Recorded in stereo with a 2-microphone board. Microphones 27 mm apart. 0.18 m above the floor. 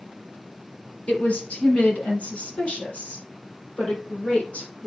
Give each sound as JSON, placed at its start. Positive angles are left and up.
{"t": 1.1, "sound": "a woman speaking", "side_deg": 65, "distance_m": 3.0}